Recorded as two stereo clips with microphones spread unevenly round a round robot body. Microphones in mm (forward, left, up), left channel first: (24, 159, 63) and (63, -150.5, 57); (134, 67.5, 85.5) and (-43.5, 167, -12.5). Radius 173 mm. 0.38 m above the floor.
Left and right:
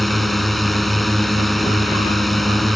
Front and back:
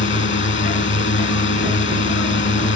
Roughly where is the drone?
Ahead.